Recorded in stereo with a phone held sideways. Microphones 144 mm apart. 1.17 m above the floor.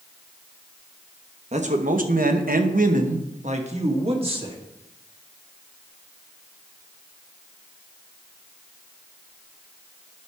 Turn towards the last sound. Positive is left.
turn(degrees=-35)  # may be behind; listen again after turning